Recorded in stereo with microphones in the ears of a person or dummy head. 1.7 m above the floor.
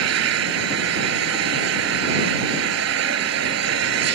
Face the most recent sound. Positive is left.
turn(degrees=-75)  # may be behind; listen again after turning